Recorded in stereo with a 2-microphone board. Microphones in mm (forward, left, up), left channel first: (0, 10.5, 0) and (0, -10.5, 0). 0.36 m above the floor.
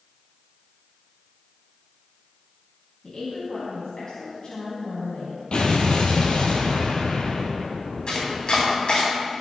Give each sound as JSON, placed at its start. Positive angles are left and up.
{"t": 3.0, "sound": "a woman speaking", "side_deg": 55, "distance_m": 2.5}
{"t": 5.5, "sound": "an explosion", "side_deg": 55, "distance_m": 1.7}
{"t": 8.1, "sound": "chopping", "side_deg": 55, "distance_m": 3.0}